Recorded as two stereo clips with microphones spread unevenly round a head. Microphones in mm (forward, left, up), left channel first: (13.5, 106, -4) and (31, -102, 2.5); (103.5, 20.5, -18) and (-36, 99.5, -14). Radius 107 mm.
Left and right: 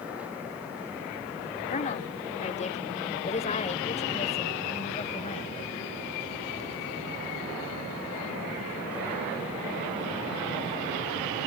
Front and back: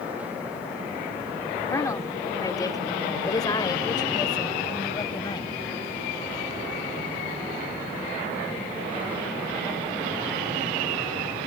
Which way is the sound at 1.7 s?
40° left.